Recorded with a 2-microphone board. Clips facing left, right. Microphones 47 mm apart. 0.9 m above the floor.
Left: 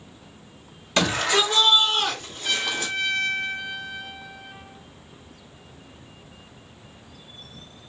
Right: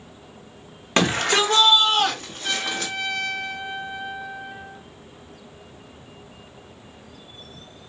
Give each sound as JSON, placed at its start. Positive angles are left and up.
{"t": 1.0, "sound": "a shout", "side_deg": -45, "distance_m": 1.3}
{"t": 2.4, "sound": "a trumpet", "side_deg": -15, "distance_m": 0.9}